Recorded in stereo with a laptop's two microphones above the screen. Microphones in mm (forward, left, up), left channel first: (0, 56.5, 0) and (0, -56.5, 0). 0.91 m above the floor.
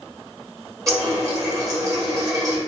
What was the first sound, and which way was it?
A running tap, 30° right (ahead or behind).